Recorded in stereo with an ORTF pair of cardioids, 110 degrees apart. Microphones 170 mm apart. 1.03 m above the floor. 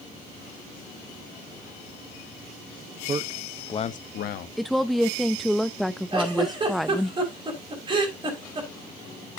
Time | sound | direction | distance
3.1 | a man speaking | 30° right | 1.1 m
4.6 | a woman speaking | straight ahead | 0.6 m
6.1 | a giggle | 25° right | 5 m